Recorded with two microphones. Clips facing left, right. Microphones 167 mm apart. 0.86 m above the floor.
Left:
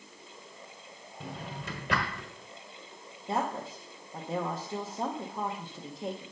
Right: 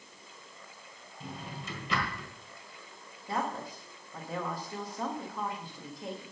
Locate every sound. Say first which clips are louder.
1.2 s a drawer: left 2 dB; 60° left (ahead or behind), 1.4 m
3.3 s a woman speaking: left 2 dB; 25° left (ahead or behind), 0.8 m